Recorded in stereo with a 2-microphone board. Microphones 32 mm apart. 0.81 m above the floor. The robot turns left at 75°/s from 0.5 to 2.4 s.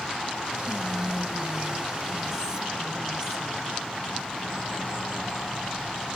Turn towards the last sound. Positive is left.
turn(degrees=-25)  # may be behind; listen again after turning